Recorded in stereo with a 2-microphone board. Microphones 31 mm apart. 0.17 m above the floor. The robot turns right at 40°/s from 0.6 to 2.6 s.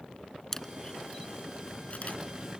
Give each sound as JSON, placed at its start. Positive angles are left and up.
{"t": 0.5, "sound": "a camera shutter", "side_deg": 15}